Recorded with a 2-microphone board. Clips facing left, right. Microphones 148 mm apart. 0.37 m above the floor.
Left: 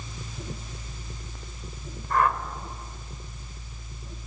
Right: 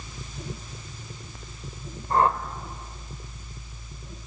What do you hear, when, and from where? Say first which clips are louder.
2.1 s a whoosh: right 2 dB; 30° right (ahead or behind), 1.5 m